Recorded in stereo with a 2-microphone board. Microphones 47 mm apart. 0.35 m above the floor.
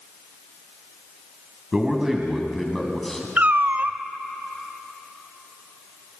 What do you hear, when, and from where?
1.7 s a man speaking: 15° right (ahead or behind), 3 m; by 3.3 s 5° left (ahead or behind), 3.5 m
3.4 s a cat meowing: 45° right (ahead or behind), 0.8 m